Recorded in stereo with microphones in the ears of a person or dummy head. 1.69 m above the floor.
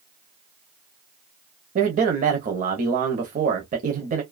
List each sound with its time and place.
1.8 s a man speaking: 40° right (ahead or behind), 0.7 m